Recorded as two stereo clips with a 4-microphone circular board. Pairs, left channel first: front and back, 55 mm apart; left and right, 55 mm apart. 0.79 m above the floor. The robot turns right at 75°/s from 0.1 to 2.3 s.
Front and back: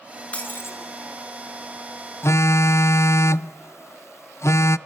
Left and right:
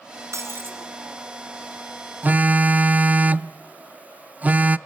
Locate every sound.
0.3 s breaking glass: 65° right, 3 m; by 0.8 s 35° right, 3 m
2.2 s a phone buzzing: 35° right, 0.5 m; by 4.8 s 30° right, 0.5 m